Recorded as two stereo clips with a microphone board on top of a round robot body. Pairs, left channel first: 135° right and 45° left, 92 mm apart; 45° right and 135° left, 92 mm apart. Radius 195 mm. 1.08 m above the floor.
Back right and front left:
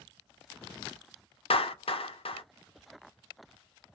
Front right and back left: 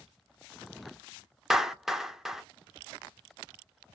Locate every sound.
1.5 s a clap: 140° right, 0.7 m